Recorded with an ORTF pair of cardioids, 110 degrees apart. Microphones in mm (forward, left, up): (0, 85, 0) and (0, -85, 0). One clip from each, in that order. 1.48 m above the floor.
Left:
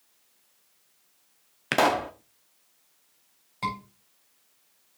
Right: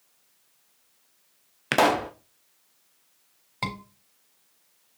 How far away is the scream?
About 4 m.